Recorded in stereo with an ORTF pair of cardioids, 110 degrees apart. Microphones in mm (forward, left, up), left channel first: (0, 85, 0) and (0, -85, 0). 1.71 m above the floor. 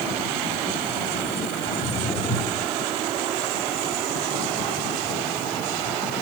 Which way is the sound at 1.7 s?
10° left.